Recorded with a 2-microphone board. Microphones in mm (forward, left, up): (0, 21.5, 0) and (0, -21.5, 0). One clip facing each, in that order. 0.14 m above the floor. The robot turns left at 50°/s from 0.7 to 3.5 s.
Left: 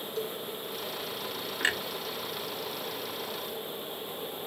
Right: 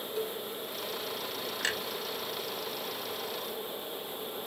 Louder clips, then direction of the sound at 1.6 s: Left 5 dB; 20° left (ahead or behind).